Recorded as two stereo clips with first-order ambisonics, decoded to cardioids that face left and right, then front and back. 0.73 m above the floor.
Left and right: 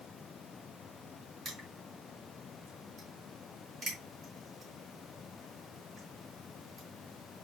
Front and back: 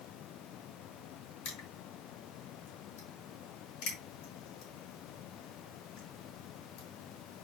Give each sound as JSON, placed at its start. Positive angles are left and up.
{"t": 1.4, "sound": "crushing", "azimuth_deg": -25, "distance_m": 5.0}